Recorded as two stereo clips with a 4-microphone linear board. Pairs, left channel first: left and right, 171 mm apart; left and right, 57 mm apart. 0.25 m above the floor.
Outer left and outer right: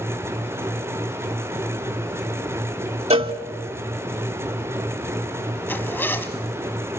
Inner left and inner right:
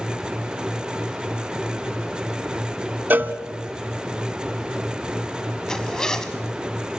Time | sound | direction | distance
3.1 | a cowbell | 35° right (ahead or behind) | 0.8 m
5.7 | a zipper | 10° left (ahead or behind) | 1.4 m